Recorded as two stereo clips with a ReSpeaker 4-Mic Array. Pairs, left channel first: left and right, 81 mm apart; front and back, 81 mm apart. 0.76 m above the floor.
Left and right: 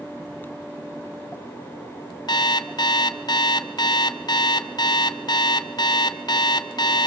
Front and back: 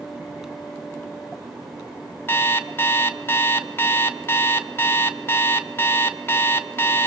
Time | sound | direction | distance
2.3 | an alarm clock | 60° left | 1.0 m